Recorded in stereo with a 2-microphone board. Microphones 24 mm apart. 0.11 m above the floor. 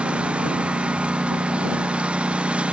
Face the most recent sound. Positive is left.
turn(degrees=-55)  # may be behind; listen again after turning